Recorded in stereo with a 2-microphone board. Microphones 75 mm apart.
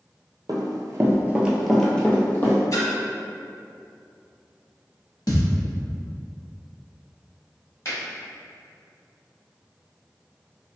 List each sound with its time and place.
0.5 s running footsteps: 65° right (ahead or behind), 0.6 m; by 2.6 s 30° left (ahead or behind), 0.9 m
2.7 s a splash: 50° left (ahead or behind), 0.7 m
5.3 s a thud: 60° left (ahead or behind), 0.6 m
7.8 s a finger snap: 45° left (ahead or behind), 1.4 m